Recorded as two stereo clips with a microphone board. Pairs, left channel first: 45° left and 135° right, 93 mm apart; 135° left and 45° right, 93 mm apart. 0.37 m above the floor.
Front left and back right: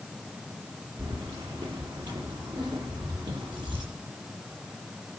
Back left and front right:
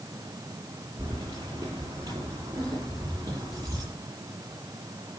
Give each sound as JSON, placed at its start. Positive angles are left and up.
{"t": 1.0, "sound": "keys jangling", "azimuth_deg": -95, "distance_m": 7.0}